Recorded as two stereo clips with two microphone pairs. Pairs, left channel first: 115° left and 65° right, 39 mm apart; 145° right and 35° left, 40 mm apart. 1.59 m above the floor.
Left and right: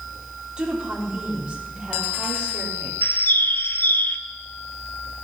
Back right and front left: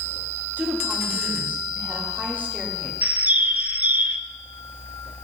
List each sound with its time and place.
0.6 s a woman speaking: straight ahead, 4 m
3.0 s a bird: 85° left, 0.7 m